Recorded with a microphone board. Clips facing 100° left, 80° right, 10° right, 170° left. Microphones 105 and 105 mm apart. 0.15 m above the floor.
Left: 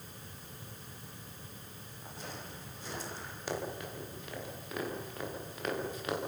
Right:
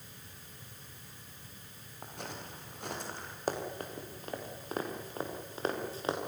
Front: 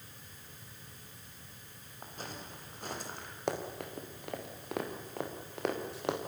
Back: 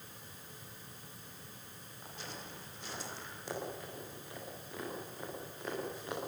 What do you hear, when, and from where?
2.0 s footsteps: 55° right, 8 m; by 3.4 s 45° right, 7.5 m
3.5 s running footsteps: 30° right, 5.5 m; by 6.2 s 20° right, 6 m